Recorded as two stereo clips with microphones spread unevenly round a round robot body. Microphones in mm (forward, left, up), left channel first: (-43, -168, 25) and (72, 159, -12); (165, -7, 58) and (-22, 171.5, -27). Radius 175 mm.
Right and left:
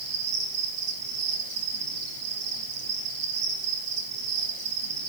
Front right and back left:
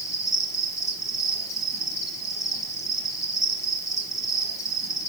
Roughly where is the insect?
Ahead left.